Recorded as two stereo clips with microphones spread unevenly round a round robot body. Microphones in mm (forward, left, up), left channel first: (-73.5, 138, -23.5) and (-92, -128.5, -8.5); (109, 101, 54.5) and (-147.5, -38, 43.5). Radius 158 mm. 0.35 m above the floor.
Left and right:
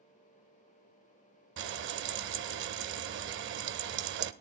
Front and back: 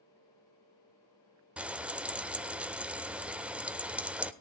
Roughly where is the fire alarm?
I don't hear a fire alarm.